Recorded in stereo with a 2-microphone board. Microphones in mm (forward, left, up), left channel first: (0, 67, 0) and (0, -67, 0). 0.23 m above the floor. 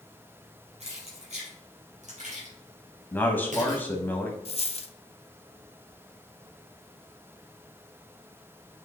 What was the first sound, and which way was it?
Keys jangling, 55° right (ahead or behind).